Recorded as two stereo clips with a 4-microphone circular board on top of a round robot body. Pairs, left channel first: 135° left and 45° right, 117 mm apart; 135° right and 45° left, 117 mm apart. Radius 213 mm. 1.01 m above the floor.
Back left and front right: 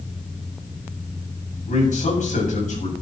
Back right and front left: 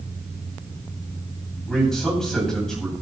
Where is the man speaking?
140° left, 8 m.